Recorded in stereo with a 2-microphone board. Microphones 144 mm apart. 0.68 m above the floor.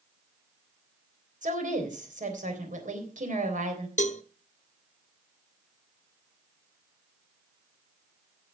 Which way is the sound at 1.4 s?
55° right (ahead or behind).